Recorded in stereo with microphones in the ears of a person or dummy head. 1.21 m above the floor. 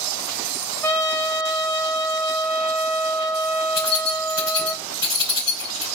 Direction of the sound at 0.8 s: 10° left (ahead or behind).